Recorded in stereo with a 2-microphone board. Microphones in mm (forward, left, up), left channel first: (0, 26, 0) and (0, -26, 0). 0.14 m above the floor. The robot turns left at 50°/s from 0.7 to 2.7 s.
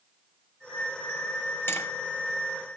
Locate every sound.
1.7 s tapping: 50° left (ahead or behind), 2.5 m; by 1.9 s 55° left (ahead or behind), 2.5 m